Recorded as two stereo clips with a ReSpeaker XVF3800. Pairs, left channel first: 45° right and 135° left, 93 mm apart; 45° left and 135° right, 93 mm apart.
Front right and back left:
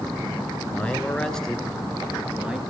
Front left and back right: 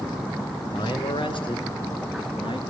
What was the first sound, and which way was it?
A man speaking, 25° left.